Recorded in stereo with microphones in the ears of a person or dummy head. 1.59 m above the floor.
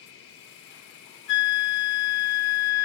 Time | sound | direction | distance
0.0 | an insect | 55° left (ahead or behind) | 0.9 m
1.3 | a flute | 65° left (ahead or behind) | 0.7 m